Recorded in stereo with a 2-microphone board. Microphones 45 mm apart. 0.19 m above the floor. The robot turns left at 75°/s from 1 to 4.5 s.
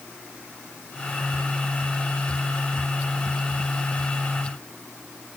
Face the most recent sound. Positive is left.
No sound to turn to.